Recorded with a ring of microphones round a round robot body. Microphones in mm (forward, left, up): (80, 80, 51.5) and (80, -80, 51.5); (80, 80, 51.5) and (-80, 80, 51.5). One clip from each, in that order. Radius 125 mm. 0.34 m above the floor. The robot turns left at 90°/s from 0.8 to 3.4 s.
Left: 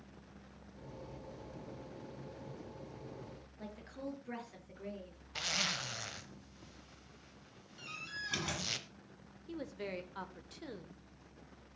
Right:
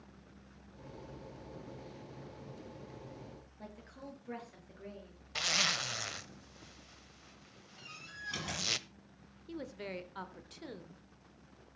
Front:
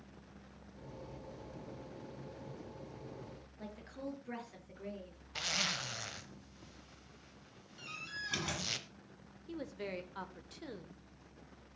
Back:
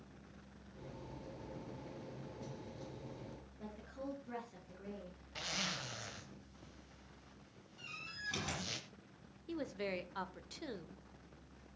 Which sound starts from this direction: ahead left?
A door slam, at 7.8 s.